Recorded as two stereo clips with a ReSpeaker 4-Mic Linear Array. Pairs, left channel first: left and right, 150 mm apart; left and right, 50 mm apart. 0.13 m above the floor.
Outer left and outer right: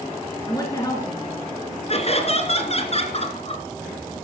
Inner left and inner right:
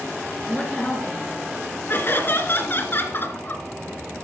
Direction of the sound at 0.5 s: 20° left (ahead or behind).